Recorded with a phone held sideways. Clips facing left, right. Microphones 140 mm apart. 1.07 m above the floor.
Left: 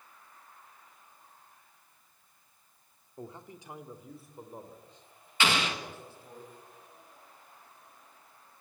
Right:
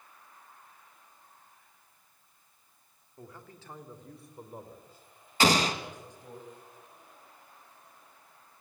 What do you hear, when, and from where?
3.2 s a man speaking: 25° left (ahead or behind), 2 m; by 6.4 s 15° right (ahead or behind), 5.5 m
5.4 s an explosion: 35° right (ahead or behind), 1.7 m